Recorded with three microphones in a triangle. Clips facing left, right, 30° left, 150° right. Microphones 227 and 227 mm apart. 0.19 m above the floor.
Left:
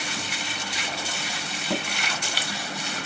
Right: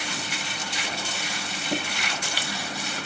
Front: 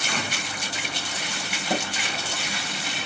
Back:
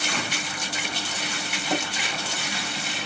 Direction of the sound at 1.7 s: 80° left.